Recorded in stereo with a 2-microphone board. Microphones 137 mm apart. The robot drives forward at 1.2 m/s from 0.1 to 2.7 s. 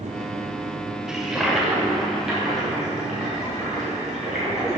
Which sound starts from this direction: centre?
A toilet flushing, at 1.1 s.